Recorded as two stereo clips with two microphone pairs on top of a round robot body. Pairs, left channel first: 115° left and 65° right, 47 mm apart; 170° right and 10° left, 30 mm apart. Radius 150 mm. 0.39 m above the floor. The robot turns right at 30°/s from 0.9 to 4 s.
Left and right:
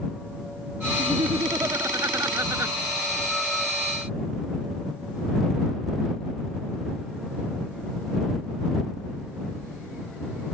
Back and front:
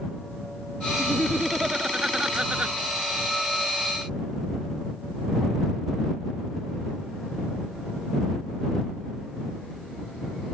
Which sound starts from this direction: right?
Laughter, at 1.0 s.